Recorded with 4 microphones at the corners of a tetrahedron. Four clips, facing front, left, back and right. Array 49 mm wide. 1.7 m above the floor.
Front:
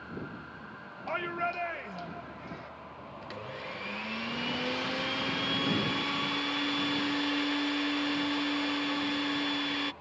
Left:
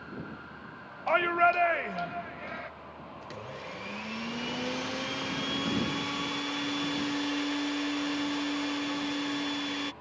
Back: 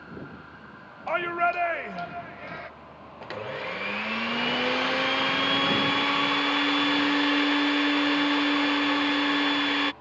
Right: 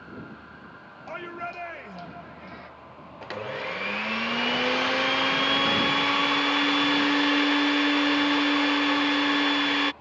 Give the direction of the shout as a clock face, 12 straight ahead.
8 o'clock.